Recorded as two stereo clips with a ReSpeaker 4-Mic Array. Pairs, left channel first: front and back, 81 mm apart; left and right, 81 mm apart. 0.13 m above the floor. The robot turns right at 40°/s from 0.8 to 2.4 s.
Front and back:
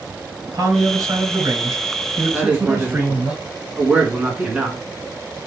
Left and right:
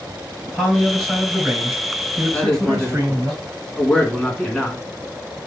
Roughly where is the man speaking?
Behind left.